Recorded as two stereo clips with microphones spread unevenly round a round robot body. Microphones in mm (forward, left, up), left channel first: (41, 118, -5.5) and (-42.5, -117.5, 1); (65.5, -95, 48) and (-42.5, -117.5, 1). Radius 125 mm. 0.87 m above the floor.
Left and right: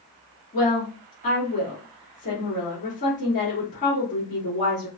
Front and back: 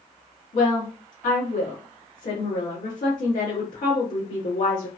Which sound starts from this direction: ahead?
A woman speaking, at 0.5 s.